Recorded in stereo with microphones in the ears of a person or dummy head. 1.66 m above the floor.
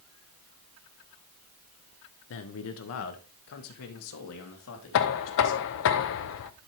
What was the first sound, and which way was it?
A man speaking, 50° left (ahead or behind).